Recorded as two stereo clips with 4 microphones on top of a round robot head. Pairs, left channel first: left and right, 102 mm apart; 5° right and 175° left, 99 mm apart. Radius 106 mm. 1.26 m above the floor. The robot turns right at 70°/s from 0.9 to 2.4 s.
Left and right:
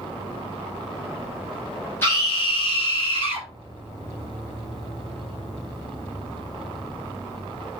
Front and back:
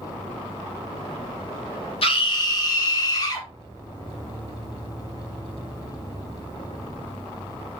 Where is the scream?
20° left, 4.5 m; by 3.5 s 45° left, 4.5 m.